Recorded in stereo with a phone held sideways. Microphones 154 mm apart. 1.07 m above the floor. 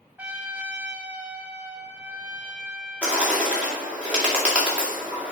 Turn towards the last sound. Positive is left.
turn(degrees=-10)  # may be behind; listen again after turning